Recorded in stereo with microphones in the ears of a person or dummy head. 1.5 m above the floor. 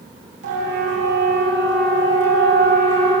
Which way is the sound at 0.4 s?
60° right (ahead or behind).